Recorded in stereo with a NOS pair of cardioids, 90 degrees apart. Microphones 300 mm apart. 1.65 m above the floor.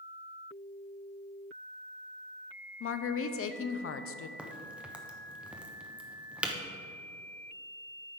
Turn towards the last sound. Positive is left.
turn(degrees=-5)